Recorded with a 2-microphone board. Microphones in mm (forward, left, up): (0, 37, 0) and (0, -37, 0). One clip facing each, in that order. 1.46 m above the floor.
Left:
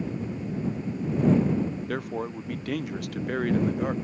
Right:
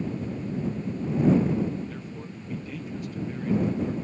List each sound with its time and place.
1.9 s a man speaking: 70° left (ahead or behind)